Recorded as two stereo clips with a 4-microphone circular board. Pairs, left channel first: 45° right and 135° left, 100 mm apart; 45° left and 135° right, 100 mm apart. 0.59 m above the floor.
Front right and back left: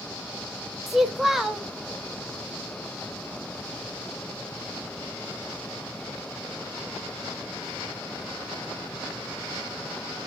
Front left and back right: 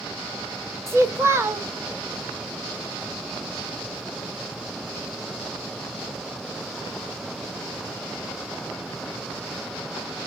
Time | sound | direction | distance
0.9 | a child speaking | 140° right | 0.6 m